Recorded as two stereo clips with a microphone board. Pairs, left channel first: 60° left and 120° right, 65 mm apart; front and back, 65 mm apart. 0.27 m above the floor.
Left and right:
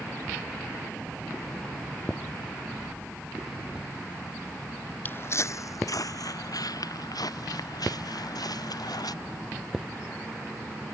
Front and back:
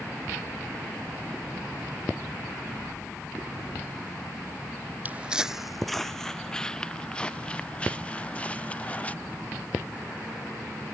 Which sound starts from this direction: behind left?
Footsteps, at 5.0 s.